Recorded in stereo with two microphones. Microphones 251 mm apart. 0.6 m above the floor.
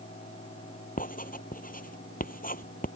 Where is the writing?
35° left (ahead or behind).